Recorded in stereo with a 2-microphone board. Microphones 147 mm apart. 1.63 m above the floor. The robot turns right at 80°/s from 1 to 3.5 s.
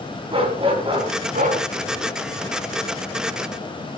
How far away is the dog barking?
About 5 m.